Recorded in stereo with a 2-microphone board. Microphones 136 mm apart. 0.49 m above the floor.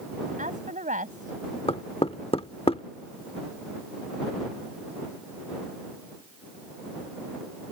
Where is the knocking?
45° left (ahead or behind).